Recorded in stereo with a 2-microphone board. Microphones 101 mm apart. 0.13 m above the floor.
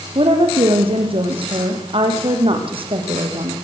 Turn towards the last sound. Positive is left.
turn(degrees=-55)  # may be behind; listen again after turning